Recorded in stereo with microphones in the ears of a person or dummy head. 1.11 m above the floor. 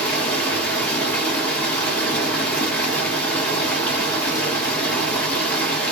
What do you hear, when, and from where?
0.0 s running water: 10° left (ahead or behind), 1.4 m